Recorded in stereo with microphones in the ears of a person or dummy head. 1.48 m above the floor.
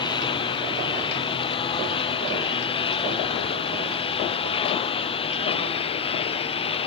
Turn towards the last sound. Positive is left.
turn(degrees=30)  # may be behind; listen again after turning